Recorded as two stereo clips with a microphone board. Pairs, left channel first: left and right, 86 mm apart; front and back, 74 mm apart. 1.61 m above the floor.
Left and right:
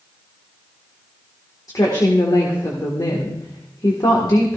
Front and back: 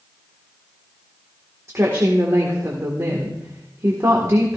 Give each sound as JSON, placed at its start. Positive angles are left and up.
{"t": 1.7, "sound": "a woman speaking", "azimuth_deg": 130, "distance_m": 1.7}